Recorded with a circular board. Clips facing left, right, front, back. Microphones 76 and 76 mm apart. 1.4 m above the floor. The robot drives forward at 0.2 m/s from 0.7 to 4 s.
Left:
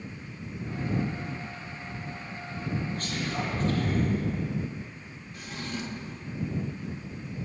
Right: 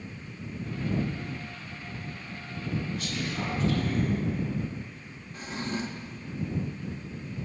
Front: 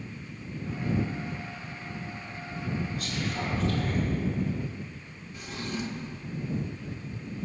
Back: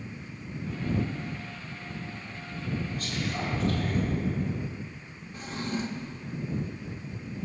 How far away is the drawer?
About 1.0 m.